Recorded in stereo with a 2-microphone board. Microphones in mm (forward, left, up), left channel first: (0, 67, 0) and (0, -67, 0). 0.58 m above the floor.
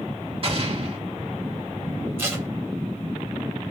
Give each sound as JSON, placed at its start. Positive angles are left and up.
{"t": 0.4, "sound": "an explosion", "side_deg": -45, "distance_m": 1.9}
{"t": 2.2, "sound": "tape being pulled", "side_deg": -15, "distance_m": 1.3}